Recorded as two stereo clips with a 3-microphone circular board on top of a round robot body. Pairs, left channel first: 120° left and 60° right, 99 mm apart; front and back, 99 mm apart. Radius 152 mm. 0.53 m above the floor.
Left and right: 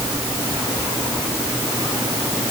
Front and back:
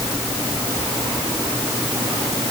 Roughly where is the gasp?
I don't hear a gasp.